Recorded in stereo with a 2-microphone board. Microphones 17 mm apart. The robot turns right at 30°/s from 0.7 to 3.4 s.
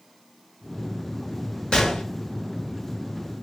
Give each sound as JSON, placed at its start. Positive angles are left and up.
{"t": 1.7, "sound": "a gunshot", "side_deg": 50, "distance_m": 1.0}